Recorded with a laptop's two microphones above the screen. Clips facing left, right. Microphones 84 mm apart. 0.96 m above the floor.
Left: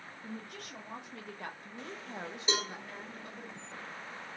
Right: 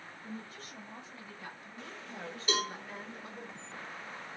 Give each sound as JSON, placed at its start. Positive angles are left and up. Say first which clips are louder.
{"t": 0.2, "sound": "a woman speaking", "louder": "left 1 dB", "side_deg": 75, "distance_m": 1.5}
{"t": 2.5, "sound": "a cowbell", "louder": "right 1 dB", "side_deg": 20, "distance_m": 1.8}